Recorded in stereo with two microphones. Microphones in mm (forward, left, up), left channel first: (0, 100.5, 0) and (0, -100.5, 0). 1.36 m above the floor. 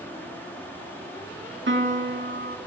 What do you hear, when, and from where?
1.7 s a piano: 60° right (ahead or behind), 1.9 m